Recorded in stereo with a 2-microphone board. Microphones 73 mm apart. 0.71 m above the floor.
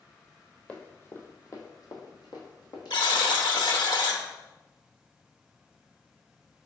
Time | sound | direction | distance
0.7 | running footsteps | 20° left (ahead or behind) | 1.0 m
2.9 | a buzzer | 80° left | 0.7 m